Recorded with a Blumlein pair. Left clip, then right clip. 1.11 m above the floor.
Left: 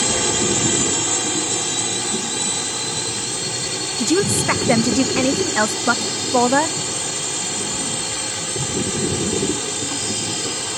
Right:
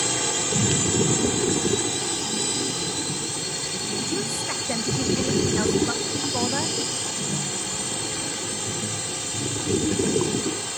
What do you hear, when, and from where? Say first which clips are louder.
0.0 s a drone: left 5 dB; 15° left
4.0 s a woman speaking: left 13 dB; 30° left